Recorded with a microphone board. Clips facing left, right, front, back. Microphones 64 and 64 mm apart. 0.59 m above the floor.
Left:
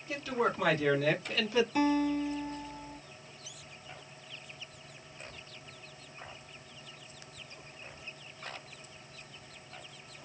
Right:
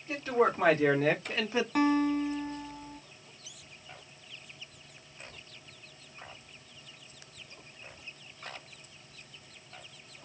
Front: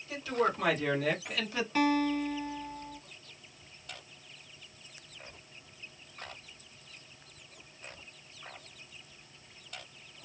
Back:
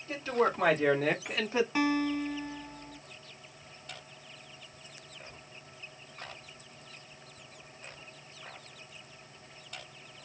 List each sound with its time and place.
0.1 s a man speaking: 135° right, 1.6 m
1.8 s a guitar: 110° right, 0.9 m